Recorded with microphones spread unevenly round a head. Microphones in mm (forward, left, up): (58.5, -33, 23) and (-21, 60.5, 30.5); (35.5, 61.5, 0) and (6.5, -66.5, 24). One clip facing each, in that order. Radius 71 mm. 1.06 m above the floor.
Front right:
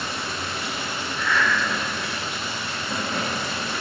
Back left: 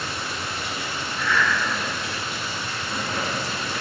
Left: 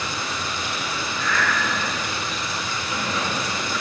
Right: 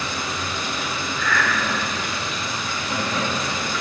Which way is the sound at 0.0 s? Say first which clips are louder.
Front right 1 dB, right 1 dB; 55° right.